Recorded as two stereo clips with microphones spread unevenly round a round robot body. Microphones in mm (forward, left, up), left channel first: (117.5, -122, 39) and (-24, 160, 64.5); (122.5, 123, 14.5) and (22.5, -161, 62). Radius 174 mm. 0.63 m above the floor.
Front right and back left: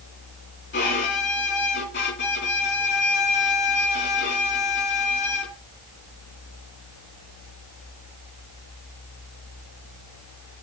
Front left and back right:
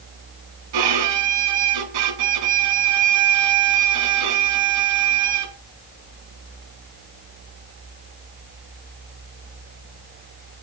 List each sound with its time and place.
0.7 s a violin: 125° right, 2.5 m